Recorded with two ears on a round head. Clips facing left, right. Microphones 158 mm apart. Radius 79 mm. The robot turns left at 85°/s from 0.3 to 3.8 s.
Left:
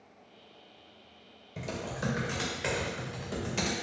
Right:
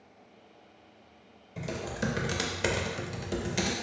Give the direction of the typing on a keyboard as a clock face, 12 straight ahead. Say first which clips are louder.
Right 2 dB; 12 o'clock.